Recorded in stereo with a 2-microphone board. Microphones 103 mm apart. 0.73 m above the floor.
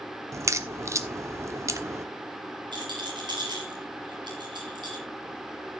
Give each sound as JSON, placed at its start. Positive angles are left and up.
{"t": 0.3, "sound": "a crack", "side_deg": -30, "distance_m": 0.9}
{"t": 2.7, "sound": "a rattle", "side_deg": -45, "distance_m": 4.5}